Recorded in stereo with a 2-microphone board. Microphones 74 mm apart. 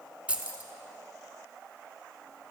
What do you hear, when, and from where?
0.3 s keys jangling: 20° right (ahead or behind), 0.8 m